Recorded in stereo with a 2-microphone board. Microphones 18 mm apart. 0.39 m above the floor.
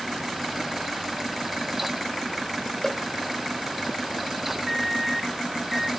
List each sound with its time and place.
2.8 s a cowbell: 20° left (ahead or behind)
4.7 s a microwave: 5° right (ahead or behind)